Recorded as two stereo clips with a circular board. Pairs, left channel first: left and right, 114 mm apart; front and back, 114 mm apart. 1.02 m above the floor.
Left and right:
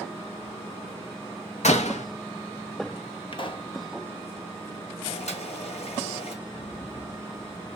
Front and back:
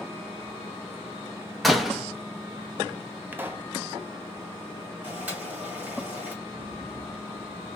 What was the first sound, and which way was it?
A door slam, 90° left.